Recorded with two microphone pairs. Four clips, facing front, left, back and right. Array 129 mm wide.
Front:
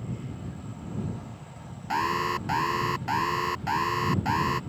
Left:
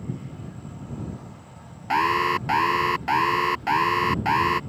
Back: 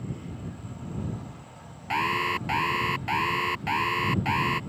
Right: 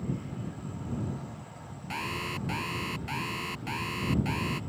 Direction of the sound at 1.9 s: 95° left.